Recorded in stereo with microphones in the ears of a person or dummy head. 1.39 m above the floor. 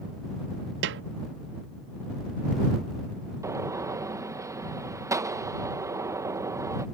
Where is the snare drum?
60° right (ahead or behind).